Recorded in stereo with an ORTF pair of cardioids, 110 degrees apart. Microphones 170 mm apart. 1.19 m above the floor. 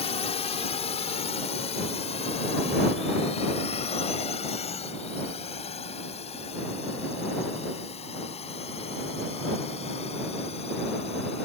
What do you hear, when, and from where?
0.0 s a drone: 40° left; by 11.5 s 35° left